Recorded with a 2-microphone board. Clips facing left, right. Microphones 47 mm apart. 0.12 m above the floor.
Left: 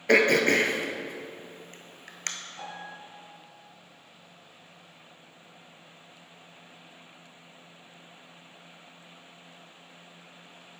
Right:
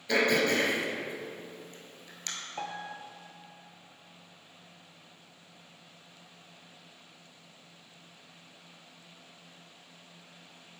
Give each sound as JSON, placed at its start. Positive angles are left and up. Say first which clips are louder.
{"t": 0.1, "sound": "throat clearing", "louder": "left 5 dB", "side_deg": 55, "distance_m": 0.8}
{"t": 2.6, "sound": "a piano", "louder": "right 2 dB", "side_deg": -55, "distance_m": 1.2}